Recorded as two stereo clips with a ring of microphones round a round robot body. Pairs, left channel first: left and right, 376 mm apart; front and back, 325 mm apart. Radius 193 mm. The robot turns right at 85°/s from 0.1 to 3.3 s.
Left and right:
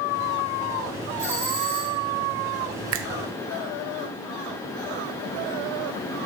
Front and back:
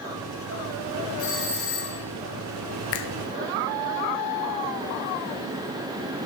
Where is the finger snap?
45° right, 0.8 m; by 3.1 s 30° right, 0.8 m.